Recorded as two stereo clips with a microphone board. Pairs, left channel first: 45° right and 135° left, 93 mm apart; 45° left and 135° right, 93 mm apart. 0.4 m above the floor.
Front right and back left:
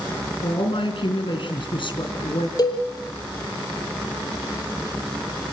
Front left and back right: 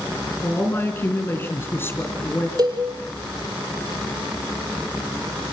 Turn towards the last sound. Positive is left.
turn(degrees=-90)